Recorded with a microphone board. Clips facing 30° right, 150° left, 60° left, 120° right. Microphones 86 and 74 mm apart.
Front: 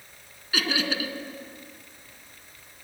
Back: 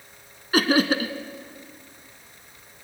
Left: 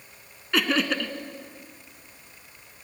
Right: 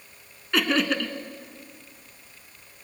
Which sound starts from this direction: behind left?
Laughter, at 0.5 s.